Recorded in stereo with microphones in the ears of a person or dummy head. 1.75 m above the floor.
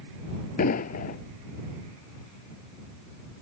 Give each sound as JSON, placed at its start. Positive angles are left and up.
{"t": 0.6, "sound": "an explosion", "side_deg": 45}